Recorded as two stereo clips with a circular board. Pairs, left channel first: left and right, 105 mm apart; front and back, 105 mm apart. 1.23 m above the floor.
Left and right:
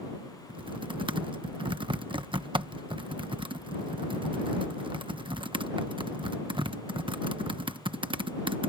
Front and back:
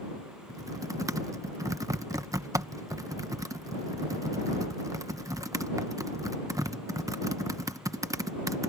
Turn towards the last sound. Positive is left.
turn(degrees=-125)